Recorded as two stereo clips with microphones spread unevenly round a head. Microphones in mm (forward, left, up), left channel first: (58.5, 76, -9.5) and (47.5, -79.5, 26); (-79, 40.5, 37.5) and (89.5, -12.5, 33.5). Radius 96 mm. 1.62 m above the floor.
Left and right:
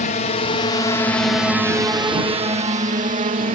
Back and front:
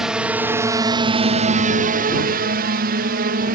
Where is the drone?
70° left; by 3.5 s 60° right.